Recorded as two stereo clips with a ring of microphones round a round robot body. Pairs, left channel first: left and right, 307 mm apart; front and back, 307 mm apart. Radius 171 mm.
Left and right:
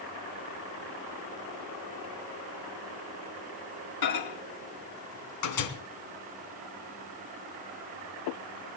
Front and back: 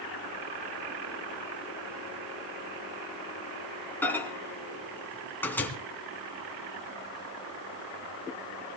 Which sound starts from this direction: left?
A microwave, at 4.0 s.